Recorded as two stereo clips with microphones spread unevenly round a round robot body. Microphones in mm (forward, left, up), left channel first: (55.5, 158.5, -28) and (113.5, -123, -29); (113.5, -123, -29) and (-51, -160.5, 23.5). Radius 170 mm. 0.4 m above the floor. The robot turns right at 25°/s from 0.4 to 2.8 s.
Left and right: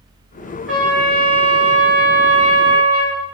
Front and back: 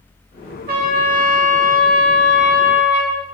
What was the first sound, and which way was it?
A trumpet, 170° right.